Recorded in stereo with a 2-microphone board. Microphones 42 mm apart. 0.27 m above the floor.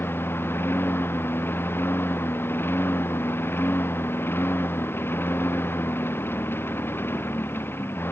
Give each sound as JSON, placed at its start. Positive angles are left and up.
{"t": 0.0, "sound": "a lawn mower", "side_deg": 65}